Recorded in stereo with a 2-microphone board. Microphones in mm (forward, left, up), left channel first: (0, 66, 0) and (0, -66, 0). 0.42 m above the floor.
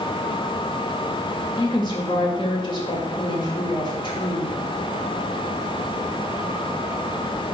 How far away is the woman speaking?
About 2.0 m.